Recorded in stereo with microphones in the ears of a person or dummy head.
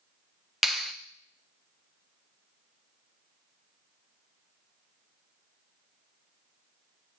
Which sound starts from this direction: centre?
A clap, at 0.6 s.